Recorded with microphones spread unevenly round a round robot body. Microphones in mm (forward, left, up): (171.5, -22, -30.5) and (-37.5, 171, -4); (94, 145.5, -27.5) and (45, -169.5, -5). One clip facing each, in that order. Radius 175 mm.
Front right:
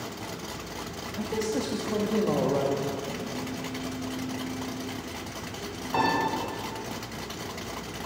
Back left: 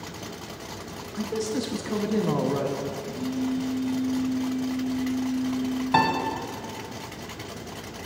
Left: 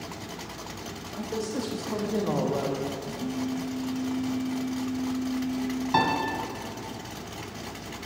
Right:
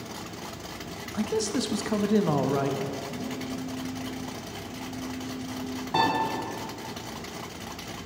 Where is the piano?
150° left, 1.6 m.